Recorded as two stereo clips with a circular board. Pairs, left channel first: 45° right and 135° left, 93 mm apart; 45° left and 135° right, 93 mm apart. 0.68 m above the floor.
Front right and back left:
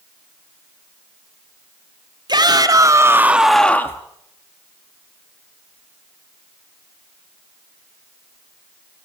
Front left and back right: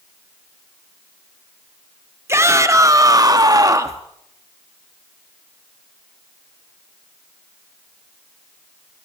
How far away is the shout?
About 2.0 m.